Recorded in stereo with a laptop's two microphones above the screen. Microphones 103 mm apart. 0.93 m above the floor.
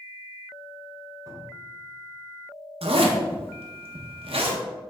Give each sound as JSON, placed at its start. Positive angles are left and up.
{"t": 1.3, "sound": "a cupboard door", "side_deg": -35, "distance_m": 1.1}
{"t": 2.8, "sound": "a zipper", "side_deg": -70, "distance_m": 0.7}